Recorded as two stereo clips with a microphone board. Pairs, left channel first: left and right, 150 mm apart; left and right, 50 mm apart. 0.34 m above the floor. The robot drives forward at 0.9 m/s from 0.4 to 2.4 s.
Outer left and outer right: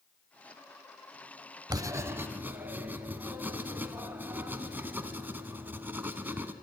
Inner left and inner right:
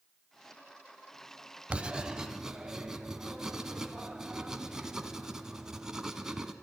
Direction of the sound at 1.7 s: 25° right (ahead or behind).